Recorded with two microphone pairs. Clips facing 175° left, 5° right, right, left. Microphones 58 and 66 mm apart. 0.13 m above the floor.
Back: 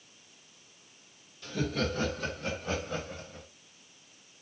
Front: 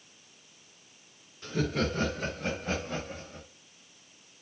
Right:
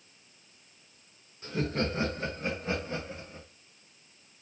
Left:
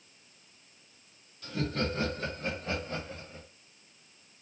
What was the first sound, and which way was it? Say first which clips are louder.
Laughter: front 2 dB, right 2 dB; 40° right.